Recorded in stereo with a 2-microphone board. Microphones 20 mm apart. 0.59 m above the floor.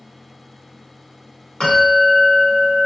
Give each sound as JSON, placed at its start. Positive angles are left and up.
{"t": 1.6, "sound": "a bell", "side_deg": 50, "distance_m": 1.6}